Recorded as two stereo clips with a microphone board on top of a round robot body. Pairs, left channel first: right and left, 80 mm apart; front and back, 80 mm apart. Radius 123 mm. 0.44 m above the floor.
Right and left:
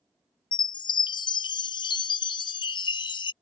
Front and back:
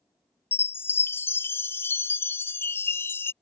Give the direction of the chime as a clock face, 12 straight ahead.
2 o'clock.